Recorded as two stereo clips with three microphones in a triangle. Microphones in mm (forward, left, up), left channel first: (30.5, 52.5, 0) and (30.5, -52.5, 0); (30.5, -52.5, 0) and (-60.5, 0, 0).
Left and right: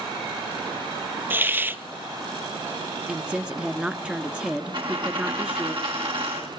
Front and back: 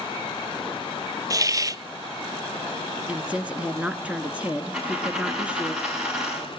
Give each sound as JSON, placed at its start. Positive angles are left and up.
{"t": 1.3, "sound": "a hiss", "azimuth_deg": -155, "distance_m": 0.7}
{"t": 3.1, "sound": "a woman speaking", "azimuth_deg": -150, "distance_m": 1.1}
{"t": 4.7, "sound": "a dropped coin", "azimuth_deg": -125, "distance_m": 5.5}